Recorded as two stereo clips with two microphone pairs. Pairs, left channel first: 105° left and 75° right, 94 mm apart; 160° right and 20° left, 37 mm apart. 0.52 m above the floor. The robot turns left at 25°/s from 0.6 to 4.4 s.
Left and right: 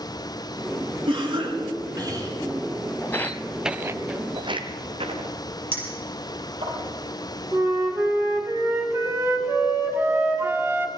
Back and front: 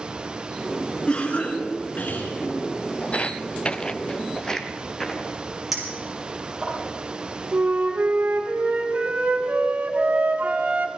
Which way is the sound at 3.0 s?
165° left.